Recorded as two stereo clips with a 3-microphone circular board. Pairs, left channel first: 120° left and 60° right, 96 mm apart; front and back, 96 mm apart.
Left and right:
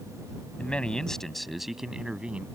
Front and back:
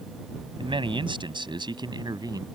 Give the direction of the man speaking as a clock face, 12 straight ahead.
5 o'clock.